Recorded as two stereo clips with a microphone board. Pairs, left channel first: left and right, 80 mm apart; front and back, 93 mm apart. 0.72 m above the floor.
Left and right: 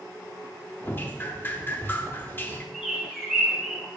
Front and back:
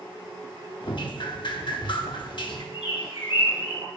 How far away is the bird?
About 5 m.